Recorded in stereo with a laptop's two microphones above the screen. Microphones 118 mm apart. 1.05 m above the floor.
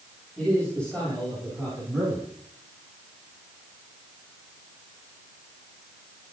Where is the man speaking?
10° left (ahead or behind), 7.5 m.